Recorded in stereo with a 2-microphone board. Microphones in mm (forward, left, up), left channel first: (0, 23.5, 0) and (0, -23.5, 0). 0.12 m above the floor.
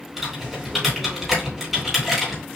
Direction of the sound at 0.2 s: Centre (ahead or behind).